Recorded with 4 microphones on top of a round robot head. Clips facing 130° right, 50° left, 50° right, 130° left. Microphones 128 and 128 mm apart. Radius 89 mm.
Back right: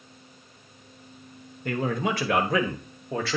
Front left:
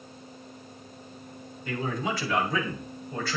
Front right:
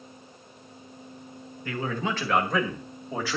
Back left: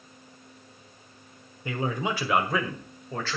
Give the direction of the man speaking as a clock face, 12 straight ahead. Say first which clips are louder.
Back right 4 dB, back left 1 dB; 5 o'clock.